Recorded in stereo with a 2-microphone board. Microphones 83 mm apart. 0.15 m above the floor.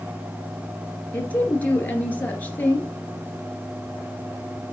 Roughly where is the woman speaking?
Centre.